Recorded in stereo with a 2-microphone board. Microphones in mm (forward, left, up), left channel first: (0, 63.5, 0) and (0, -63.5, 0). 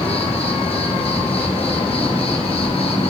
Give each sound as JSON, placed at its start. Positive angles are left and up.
{"t": 0.0, "sound": "an insect", "side_deg": 45, "distance_m": 1.3}